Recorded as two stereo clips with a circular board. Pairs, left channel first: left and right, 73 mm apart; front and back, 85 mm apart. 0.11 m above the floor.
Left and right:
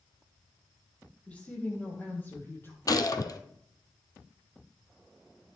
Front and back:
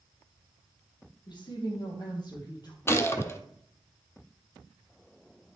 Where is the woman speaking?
15° left, 3 m; by 2.8 s 35° left, 3 m.